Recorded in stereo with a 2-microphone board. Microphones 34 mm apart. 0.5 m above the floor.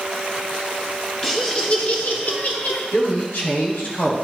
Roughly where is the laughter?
Left.